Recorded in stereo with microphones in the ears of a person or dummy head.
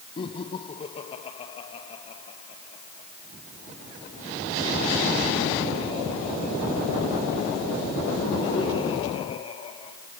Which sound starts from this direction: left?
Laughter, at 0.2 s.